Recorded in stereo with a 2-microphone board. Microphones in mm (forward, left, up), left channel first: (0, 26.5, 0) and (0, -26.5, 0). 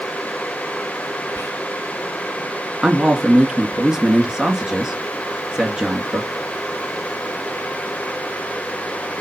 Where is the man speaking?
15° right (ahead or behind), 2.5 m.